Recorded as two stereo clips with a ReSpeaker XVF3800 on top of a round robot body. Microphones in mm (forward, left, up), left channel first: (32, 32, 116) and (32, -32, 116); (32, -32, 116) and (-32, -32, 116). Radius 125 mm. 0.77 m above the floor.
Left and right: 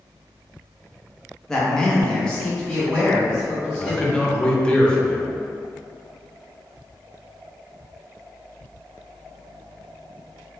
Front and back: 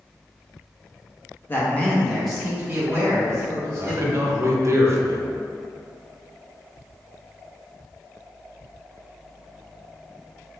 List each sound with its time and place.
1.5 s a man speaking: 15° left, 0.9 m; by 4.5 s 175° left, 1.5 m
3.7 s a man speaking: 160° left, 0.6 m